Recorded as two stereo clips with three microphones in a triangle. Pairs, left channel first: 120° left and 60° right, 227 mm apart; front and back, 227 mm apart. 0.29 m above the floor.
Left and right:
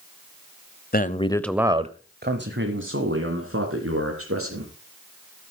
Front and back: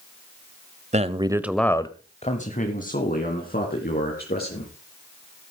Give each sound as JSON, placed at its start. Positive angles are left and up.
{"t": 0.9, "sound": "a man speaking", "azimuth_deg": 135, "distance_m": 1.1}